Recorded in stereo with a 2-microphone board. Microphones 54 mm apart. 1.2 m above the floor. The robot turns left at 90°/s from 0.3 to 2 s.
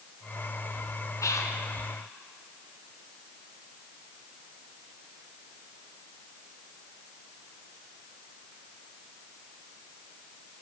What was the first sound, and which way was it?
Whispering, 65° left (ahead or behind).